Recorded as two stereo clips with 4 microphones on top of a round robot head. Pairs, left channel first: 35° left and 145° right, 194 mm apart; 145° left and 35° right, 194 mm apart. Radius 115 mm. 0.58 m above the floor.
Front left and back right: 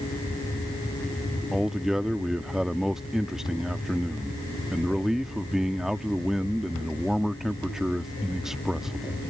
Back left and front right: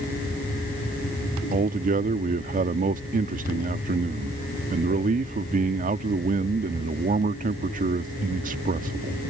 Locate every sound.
1.5 s a man speaking: 55° right